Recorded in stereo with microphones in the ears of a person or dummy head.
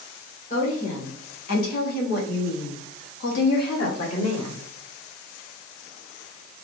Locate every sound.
0.5 s a woman speaking: 45° left (ahead or behind), 2.5 m; by 4.6 s 35° left (ahead or behind), 1.4 m